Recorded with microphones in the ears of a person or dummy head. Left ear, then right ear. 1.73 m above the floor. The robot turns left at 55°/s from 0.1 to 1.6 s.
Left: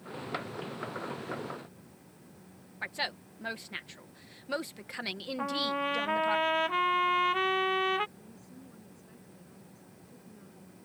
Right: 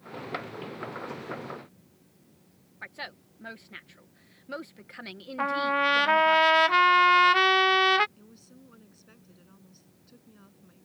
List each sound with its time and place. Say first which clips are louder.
2.8 s a woman speaking: left 5 dB; 20° left (ahead or behind)
5.4 s a trumpet: right 7 dB; 70° right (ahead or behind)
8.2 s a woman speaking: left 2 dB; 75° right (ahead or behind)